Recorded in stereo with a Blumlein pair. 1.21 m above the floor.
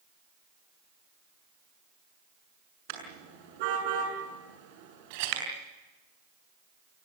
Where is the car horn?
45° right, 7 m.